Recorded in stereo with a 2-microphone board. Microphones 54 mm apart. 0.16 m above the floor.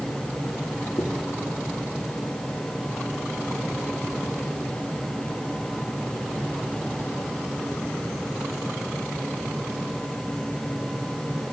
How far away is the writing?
About 4 m.